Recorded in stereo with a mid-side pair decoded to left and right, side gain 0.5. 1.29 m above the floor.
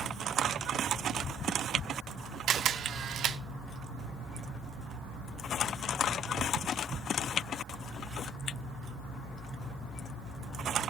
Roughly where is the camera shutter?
Ahead right.